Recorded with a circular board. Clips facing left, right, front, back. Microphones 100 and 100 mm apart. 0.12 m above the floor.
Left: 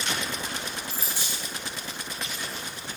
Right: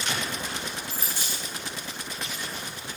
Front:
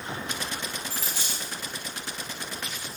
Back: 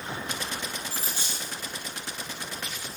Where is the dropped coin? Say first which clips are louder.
Even, even; straight ahead, 3.5 m.